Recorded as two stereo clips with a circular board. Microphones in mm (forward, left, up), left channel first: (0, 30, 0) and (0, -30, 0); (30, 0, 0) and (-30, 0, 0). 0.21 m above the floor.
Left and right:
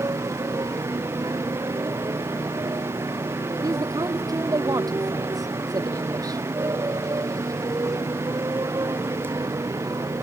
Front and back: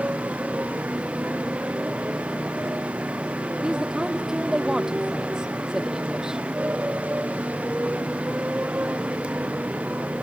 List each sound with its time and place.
0.0 s a motorcycle: 115° right
3.6 s a woman speaking: 100° right